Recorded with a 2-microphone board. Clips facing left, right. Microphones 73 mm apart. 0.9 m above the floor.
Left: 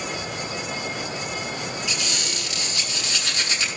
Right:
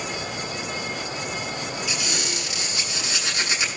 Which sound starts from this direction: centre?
A squeak, at 1.9 s.